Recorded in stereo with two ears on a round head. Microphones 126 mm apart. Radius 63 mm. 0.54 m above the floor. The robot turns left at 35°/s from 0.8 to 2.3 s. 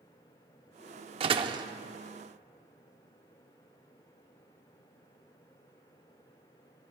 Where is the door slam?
45° right (ahead or behind), 0.6 m; by 1.7 s 30° right (ahead or behind), 0.6 m.